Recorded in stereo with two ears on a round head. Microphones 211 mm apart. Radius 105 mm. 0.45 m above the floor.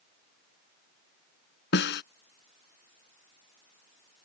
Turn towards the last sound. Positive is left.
turn(degrees=50)  # may be behind; listen again after turning